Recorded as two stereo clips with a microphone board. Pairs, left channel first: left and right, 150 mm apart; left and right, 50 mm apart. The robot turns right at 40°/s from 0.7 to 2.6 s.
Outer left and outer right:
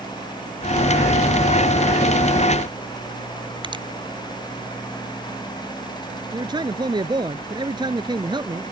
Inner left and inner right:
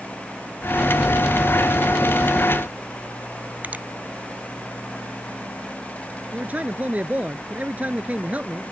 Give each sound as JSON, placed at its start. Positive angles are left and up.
{"t": 3.6, "sound": "a finger snap", "side_deg": -35}
{"t": 6.3, "sound": "a man speaking", "side_deg": -30}